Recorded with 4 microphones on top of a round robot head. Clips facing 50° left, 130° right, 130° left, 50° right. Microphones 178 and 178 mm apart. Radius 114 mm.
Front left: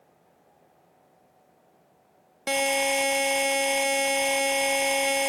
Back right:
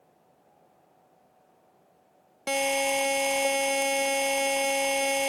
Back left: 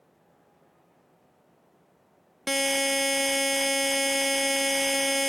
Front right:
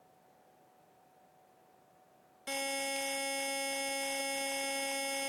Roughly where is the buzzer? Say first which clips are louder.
Front left 1 dB, back left 11 dB; behind left.